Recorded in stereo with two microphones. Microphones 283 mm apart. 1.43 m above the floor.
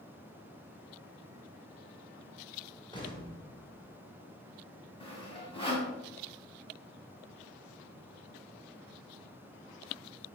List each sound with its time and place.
2.9 s an explosion: 15° left (ahead or behind), 2.5 m
5.0 s sawing: 20° left (ahead or behind), 2.5 m